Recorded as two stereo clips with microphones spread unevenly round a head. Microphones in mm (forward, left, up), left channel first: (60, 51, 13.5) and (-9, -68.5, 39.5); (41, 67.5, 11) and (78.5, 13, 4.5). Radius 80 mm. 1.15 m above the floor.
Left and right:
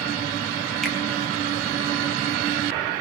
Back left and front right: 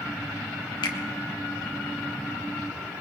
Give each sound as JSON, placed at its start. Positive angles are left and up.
{"t": 0.8, "sound": "a finger snap", "azimuth_deg": 145, "distance_m": 1.0}